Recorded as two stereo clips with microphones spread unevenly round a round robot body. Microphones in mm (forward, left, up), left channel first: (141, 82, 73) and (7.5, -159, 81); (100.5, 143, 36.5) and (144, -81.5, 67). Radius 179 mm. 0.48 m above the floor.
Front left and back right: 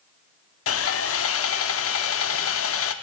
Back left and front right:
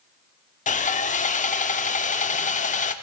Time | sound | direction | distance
0.7 | sawing | 60° left | 0.6 m